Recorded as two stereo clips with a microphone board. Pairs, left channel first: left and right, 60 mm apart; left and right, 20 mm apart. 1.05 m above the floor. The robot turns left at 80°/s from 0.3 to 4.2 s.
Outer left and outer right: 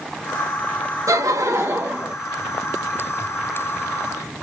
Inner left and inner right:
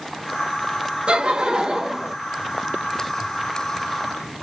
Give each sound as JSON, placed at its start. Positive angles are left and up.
{"t": 1.1, "sound": "laughter", "azimuth_deg": -75, "distance_m": 0.7}